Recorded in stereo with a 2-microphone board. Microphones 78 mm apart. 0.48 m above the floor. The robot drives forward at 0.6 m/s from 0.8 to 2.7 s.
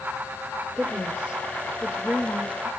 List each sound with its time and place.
0.8 s a woman speaking: 15° right (ahead or behind), 1.4 m; by 2.7 s 10° right (ahead or behind), 2.5 m